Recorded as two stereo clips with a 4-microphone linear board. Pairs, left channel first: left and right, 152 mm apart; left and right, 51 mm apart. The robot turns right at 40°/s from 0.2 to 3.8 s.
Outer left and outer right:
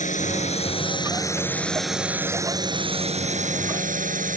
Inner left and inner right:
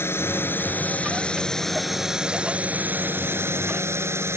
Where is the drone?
115° left; by 4.4 s 100° right.